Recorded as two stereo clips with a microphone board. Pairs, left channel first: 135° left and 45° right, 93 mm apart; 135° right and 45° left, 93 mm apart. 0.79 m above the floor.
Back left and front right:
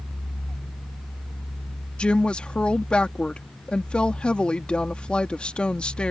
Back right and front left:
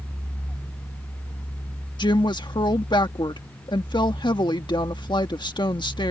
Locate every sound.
2.0 s a woman speaking: 150° right